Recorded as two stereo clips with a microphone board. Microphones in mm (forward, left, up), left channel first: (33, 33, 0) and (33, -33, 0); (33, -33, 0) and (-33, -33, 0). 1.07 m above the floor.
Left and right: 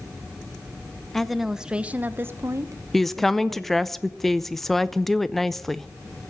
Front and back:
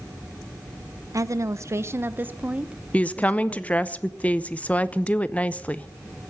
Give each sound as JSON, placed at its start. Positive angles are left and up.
{"t": 1.1, "sound": "a woman speaking", "azimuth_deg": 175, "distance_m": 0.9}
{"t": 2.9, "sound": "a woman speaking", "azimuth_deg": 10, "distance_m": 0.6}